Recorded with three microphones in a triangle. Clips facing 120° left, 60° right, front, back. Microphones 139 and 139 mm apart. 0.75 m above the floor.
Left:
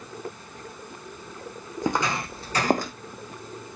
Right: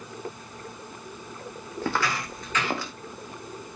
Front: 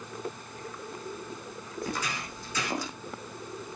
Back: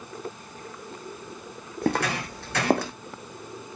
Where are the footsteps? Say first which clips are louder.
Left 2 dB, back 10 dB; 165° right, 2 m; by 2.9 s 160° left, 2.0 m.